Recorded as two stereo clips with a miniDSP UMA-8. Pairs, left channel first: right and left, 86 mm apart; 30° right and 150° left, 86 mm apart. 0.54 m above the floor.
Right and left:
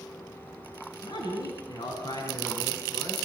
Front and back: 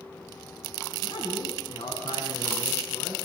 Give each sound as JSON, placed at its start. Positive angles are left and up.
{"t": 1.0, "sound": "a man speaking", "azimuth_deg": -60, "distance_m": 6.0}